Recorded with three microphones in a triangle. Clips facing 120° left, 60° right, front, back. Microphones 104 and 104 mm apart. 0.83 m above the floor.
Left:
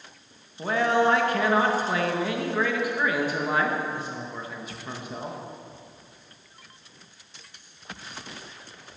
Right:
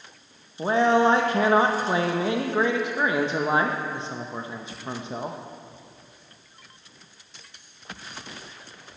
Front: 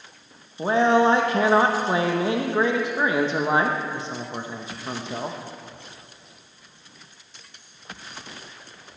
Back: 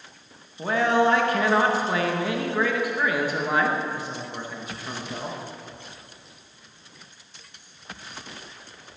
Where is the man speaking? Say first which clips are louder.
Right 3 dB, front 3 dB; 30° right, 0.9 m.